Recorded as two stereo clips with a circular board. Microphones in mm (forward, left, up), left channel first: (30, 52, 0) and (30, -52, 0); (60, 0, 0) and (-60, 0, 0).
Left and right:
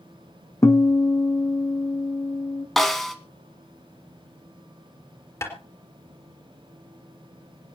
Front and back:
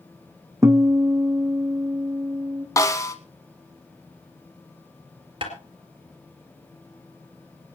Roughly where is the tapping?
Behind left.